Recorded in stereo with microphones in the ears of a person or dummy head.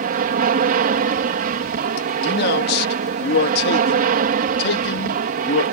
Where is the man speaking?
65° left (ahead or behind).